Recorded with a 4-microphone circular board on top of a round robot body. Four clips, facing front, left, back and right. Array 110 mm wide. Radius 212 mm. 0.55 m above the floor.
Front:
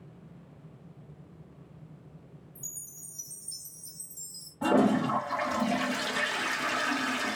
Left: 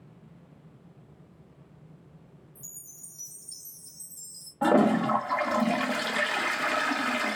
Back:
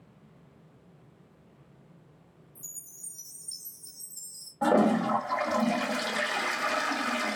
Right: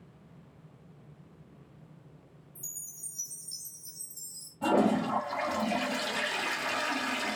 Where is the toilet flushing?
110° left, 1.6 m.